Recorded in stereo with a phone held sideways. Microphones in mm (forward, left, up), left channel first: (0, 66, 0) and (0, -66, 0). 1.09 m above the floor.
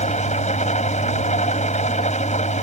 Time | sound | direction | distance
0.0 | an engine running | 65° left (ahead or behind) | ?